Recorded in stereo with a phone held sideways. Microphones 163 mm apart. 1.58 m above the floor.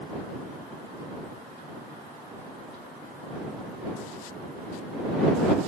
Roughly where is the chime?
No chime in this recording.